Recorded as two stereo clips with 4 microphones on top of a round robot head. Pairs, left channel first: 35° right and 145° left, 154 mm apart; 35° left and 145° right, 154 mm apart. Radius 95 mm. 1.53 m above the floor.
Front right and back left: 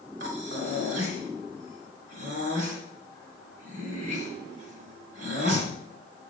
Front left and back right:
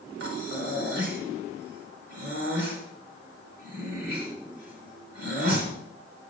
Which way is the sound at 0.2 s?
170° right.